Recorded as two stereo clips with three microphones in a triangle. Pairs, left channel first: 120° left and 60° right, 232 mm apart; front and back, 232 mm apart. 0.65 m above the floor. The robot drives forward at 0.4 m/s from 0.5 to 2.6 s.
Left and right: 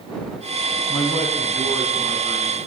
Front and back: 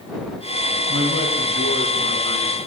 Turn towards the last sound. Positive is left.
turn(degrees=-170)